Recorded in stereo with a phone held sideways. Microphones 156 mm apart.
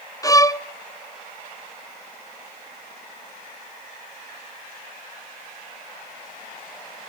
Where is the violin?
20° left (ahead or behind), 0.7 m.